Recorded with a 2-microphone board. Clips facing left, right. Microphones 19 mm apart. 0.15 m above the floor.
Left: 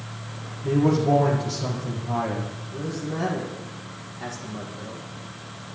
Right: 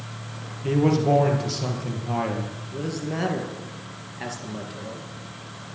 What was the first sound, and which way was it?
A man speaking, 40° right (ahead or behind).